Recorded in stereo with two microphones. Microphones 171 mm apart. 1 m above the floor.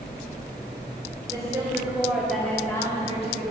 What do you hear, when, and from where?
1.3 s a woman speaking: 20° right (ahead or behind), 3 m; by 3.5 s 50° left (ahead or behind), 1.7 m